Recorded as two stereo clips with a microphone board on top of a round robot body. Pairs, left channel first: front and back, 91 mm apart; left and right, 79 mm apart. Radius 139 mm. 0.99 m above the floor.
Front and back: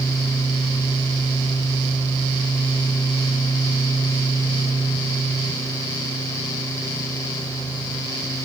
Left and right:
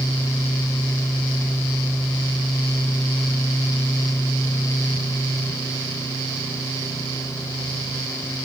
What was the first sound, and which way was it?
Only background noise.